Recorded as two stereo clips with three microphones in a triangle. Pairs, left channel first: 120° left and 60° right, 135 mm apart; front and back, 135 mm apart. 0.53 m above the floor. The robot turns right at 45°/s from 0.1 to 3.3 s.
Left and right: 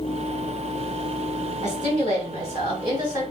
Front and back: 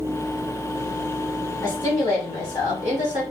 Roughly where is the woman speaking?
Ahead right.